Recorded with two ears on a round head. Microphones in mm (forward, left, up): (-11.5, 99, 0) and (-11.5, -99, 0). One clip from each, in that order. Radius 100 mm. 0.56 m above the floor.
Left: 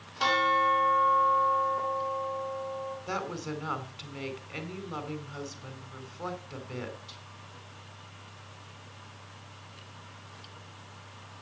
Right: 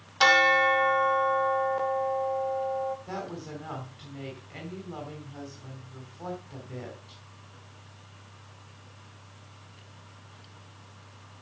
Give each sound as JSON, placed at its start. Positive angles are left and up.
{"t": 0.2, "sound": "a bell", "side_deg": -60, "distance_m": 1.8}
{"t": 3.1, "sound": "a woman speaking", "side_deg": 55, "distance_m": 3.5}